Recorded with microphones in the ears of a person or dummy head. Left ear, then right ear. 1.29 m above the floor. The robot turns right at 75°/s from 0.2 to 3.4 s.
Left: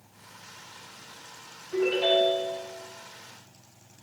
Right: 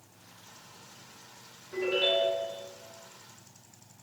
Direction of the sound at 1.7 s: 165° left.